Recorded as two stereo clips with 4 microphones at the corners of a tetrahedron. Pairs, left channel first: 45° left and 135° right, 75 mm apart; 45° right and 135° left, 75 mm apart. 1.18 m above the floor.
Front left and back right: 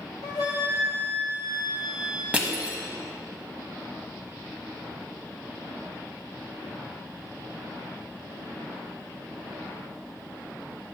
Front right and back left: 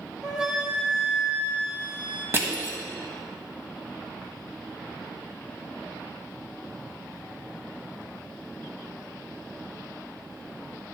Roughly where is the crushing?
Behind.